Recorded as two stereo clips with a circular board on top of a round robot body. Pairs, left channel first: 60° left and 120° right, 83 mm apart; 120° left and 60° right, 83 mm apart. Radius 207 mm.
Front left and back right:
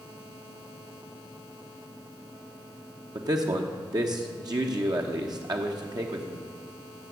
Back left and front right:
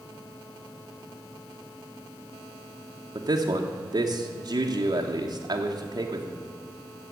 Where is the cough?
I don't hear a cough.